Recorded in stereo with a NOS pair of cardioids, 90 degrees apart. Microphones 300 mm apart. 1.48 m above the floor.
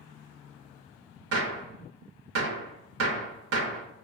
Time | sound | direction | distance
1.3 | a gunshot | 50° right | 0.9 m